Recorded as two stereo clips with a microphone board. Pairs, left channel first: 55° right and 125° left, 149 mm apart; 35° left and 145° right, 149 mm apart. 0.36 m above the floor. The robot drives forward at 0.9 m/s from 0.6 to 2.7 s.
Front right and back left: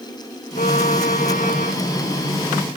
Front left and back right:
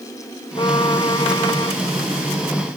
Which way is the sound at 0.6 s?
25° right.